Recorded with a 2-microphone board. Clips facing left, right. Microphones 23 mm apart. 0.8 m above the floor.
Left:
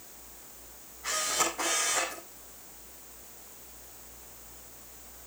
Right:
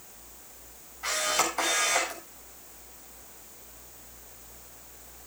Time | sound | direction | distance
1.0 | a camera shutter | 75° right (ahead or behind) | 8.5 m